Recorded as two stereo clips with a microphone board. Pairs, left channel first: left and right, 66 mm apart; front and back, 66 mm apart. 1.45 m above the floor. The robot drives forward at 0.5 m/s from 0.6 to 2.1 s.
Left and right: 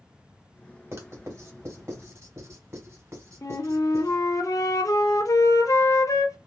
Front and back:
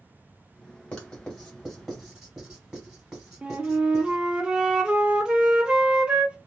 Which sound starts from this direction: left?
A flute, at 3.4 s.